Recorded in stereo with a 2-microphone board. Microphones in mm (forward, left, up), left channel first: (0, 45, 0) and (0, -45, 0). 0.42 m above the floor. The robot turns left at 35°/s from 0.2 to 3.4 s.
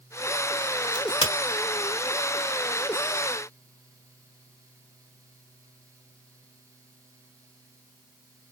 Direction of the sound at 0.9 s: 50° left (ahead or behind).